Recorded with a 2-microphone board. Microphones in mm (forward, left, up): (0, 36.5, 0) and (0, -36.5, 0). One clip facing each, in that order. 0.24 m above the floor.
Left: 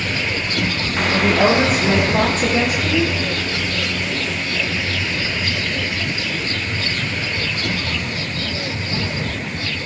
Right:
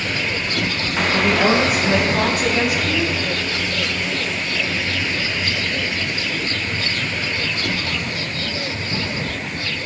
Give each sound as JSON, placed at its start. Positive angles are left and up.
{"t": 1.1, "sound": "a woman speaking", "side_deg": 30, "distance_m": 7.5}